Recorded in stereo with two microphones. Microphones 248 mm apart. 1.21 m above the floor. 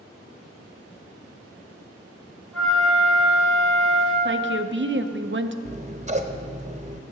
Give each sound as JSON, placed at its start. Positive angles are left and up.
{"t": 2.5, "sound": "a flute", "side_deg": 5, "distance_m": 3.5}
{"t": 4.2, "sound": "a woman speaking", "side_deg": -45, "distance_m": 0.6}
{"t": 5.7, "sound": "scissors", "side_deg": -25, "distance_m": 0.6}